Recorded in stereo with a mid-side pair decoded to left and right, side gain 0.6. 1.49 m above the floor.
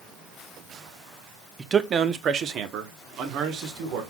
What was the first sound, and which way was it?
A man speaking, 25° right.